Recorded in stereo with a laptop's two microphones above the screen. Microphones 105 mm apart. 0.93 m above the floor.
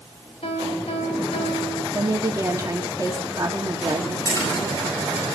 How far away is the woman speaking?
About 1.7 m.